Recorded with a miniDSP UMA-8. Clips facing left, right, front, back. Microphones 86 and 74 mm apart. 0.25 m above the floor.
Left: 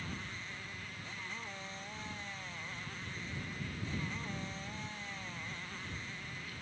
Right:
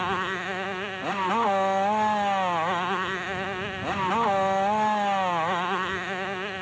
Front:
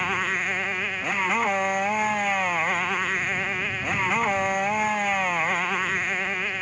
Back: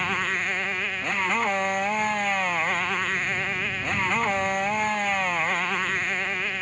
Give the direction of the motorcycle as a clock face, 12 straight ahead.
3 o'clock.